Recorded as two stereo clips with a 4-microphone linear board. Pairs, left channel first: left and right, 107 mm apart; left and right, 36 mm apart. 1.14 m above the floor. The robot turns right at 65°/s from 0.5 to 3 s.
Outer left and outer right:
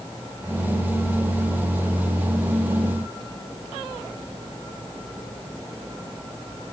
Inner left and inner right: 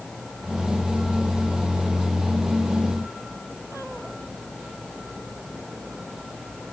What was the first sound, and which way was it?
Only background noise.